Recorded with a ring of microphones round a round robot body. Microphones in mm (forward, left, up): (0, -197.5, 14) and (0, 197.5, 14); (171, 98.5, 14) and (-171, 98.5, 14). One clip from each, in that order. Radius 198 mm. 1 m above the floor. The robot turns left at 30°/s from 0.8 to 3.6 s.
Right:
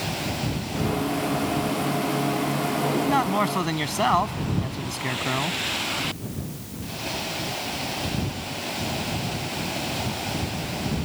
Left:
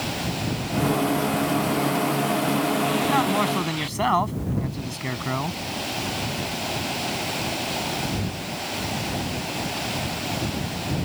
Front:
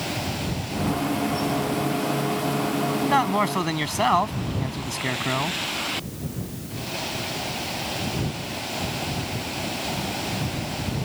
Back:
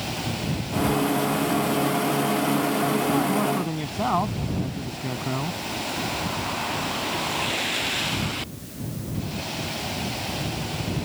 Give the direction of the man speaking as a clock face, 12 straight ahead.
12 o'clock.